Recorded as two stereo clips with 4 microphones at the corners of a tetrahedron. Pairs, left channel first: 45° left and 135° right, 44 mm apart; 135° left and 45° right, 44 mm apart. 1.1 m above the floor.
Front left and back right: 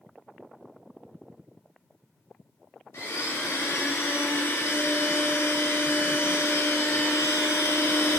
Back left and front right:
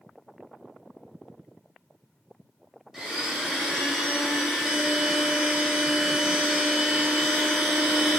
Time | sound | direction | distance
2.9 | a blender | 35° left | 0.7 m